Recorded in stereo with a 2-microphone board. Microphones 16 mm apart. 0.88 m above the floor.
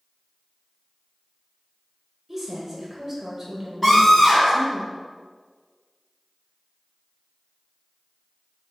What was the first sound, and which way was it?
A woman speaking, 15° right (ahead or behind).